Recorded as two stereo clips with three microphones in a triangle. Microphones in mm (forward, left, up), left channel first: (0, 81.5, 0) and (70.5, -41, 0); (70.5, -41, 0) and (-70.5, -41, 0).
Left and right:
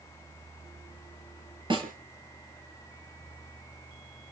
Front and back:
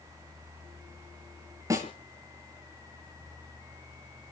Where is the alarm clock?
I don't hear an alarm clock.